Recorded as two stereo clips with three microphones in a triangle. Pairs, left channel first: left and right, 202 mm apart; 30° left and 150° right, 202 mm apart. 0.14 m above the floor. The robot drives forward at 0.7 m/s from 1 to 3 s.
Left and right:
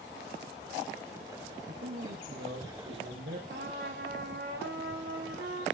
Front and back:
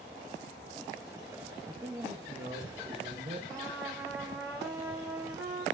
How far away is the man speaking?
About 4 m.